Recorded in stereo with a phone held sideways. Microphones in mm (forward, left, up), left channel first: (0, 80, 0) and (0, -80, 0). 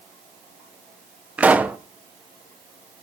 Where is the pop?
10° right (ahead or behind), 0.8 m.